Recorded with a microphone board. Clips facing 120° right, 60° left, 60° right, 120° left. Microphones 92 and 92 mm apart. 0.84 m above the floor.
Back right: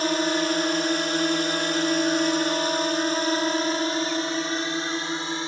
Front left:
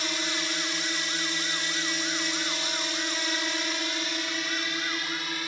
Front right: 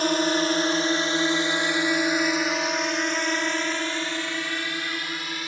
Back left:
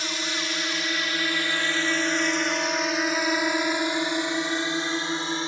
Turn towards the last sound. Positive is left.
turn(degrees=180)